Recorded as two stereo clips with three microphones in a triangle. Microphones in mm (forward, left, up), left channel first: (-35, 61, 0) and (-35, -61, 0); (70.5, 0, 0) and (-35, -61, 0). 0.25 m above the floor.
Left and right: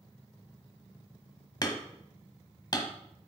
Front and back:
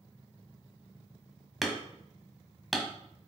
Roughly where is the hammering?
Behind left.